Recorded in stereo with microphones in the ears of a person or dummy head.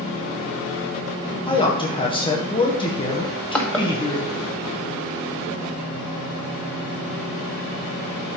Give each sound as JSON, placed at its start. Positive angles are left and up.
{"t": 1.5, "sound": "a man speaking", "side_deg": 20, "distance_m": 1.3}
{"t": 3.2, "sound": "crushing", "side_deg": 10, "distance_m": 1.4}